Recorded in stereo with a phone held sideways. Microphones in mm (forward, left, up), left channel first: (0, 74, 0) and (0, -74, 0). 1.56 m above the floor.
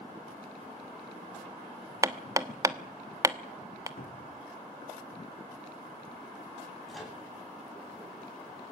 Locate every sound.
2.0 s hammering: 20° right (ahead or behind), 1.1 m
4.0 s a cupboard door: 85° left, 3.5 m
6.9 s a microwave: centre (ahead or behind), 9 m